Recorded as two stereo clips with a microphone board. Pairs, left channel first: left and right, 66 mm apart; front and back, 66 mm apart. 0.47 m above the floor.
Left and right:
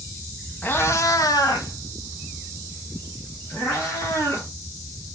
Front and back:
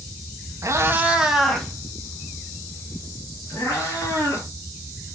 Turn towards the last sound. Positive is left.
turn(degrees=50)